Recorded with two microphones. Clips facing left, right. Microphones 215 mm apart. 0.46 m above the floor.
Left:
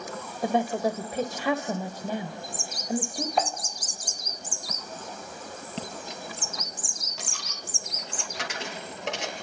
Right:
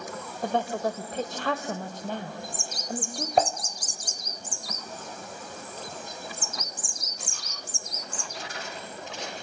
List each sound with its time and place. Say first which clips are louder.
0.4 s a woman speaking: left 3 dB; 10° left (ahead or behind), 1.6 m
3.4 s dishes clattering: right 5 dB; 45° right (ahead or behind), 1.3 m
5.8 s a dropped coin: left 5 dB; 80° left, 4 m